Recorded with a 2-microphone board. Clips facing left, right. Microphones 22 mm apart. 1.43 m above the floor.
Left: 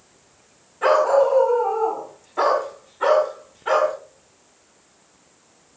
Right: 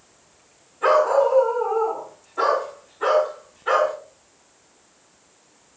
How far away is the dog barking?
About 4.5 m.